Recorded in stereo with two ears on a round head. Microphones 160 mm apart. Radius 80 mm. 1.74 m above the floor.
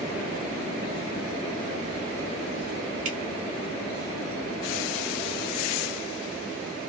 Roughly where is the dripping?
Right.